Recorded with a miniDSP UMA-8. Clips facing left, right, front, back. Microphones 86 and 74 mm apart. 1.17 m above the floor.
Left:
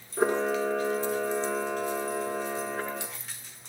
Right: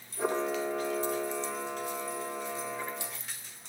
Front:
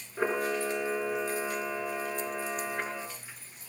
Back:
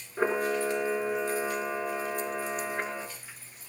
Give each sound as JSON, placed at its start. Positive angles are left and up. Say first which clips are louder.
{"t": 0.2, "sound": "a camera shutter", "louder": "left 5 dB, back 2 dB", "azimuth_deg": 95, "distance_m": 4.0}